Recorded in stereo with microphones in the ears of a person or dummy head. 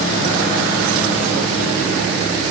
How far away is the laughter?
I don't hear laughter.